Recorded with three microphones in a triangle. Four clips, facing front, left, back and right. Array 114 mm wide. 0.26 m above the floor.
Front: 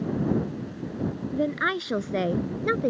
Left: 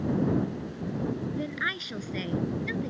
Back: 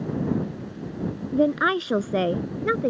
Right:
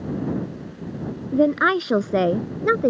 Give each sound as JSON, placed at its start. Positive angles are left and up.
{"t": 1.3, "sound": "a woman speaking", "azimuth_deg": -115}